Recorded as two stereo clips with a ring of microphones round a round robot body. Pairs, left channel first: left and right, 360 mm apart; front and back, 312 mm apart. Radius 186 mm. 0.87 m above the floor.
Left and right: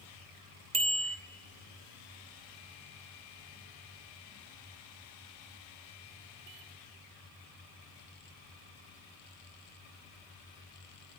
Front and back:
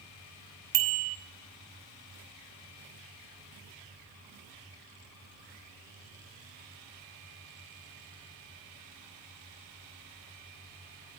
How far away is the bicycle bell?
About 2.5 m.